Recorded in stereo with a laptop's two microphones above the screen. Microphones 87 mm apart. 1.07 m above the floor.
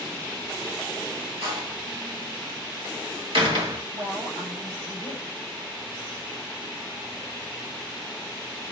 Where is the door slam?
90° right, 1.7 m.